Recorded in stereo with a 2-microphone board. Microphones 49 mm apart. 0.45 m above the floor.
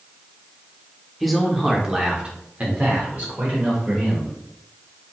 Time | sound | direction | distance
1.2 | a man speaking | centre (ahead or behind) | 0.9 m